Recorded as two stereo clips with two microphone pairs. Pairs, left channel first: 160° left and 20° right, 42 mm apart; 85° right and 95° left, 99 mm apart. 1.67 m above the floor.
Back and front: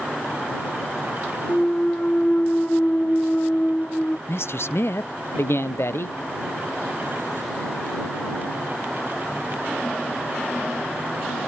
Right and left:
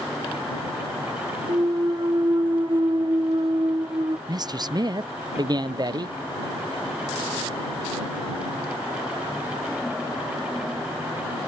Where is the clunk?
125° left.